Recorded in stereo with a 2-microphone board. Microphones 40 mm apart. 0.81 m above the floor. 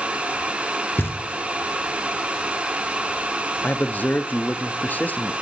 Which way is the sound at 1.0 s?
65° left (ahead or behind).